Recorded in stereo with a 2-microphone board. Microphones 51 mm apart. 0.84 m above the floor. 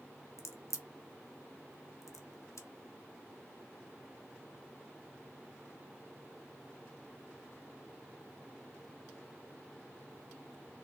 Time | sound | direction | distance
0.4 | a crack | 65° left (ahead or behind) | 0.6 m